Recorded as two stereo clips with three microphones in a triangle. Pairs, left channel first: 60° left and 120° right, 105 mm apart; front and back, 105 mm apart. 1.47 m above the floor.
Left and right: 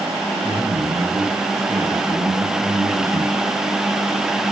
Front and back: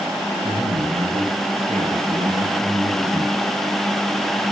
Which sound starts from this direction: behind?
A man speaking, at 0.4 s.